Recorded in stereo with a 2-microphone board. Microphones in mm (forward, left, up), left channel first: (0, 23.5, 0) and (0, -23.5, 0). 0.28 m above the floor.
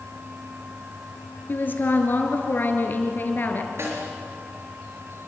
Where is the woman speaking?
45° left (ahead or behind), 4 m.